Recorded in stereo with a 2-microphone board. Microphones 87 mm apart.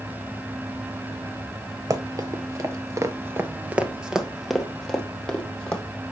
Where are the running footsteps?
45° right (ahead or behind), 1.3 m; by 5.8 s 15° left (ahead or behind), 2 m.